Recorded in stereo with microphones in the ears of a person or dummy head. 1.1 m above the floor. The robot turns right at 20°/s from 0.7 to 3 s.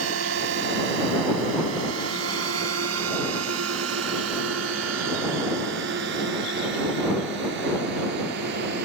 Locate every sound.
0.0 s a drone: 70° right (ahead or behind); by 8.8 s 50° right (ahead or behind)